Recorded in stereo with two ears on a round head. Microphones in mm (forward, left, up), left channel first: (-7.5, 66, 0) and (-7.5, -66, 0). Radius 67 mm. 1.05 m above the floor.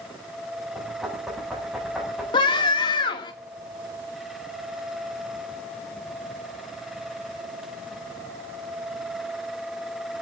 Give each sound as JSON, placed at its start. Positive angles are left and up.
{"t": 0.8, "sound": "knocking", "side_deg": -5, "distance_m": 7.5}
{"t": 2.3, "sound": "a scream", "side_deg": 35, "distance_m": 3.0}